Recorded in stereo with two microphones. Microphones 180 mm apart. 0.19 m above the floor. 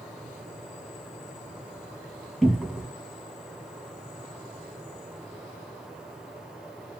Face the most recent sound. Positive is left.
turn(degrees=0)  # may be behind; listen again after turning